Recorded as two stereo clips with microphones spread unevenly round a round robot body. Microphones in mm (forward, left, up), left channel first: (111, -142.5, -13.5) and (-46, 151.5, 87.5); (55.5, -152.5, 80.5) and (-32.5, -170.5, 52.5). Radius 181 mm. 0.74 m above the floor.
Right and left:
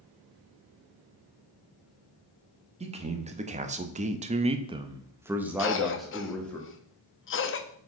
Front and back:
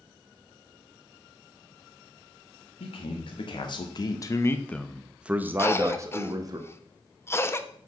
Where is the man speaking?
40° left, 1.1 m; by 6.6 s 140° right, 1.2 m.